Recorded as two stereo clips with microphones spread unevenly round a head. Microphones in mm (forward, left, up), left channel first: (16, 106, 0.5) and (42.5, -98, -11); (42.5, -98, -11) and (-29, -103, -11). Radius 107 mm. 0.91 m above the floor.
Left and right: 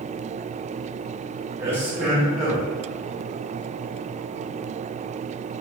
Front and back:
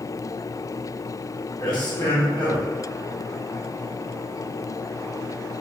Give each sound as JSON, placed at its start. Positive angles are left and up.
{"t": 1.6, "sound": "a man speaking", "azimuth_deg": -10, "distance_m": 1.3}